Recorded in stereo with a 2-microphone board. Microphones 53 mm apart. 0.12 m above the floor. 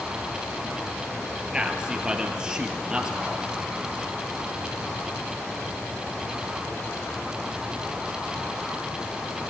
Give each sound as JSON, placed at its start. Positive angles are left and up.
{"t": 1.5, "sound": "a man speaking", "side_deg": -15, "distance_m": 2.5}